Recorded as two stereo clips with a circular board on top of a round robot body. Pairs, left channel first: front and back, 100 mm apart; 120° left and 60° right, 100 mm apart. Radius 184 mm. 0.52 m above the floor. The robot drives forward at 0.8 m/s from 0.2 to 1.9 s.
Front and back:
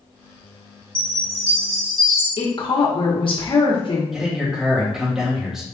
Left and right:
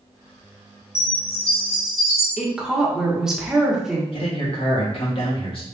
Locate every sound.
0.9 s a chime: 115° left, 2 m; by 2.3 s 130° left, 2.5 m
2.4 s a woman speaking: 25° left, 1.4 m
4.1 s a man speaking: 95° left, 2 m